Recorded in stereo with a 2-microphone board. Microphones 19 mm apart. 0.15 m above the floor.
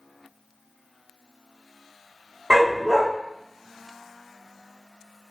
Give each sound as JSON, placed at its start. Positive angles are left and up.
{"t": 2.5, "sound": "a dog barking", "side_deg": -70, "distance_m": 1.9}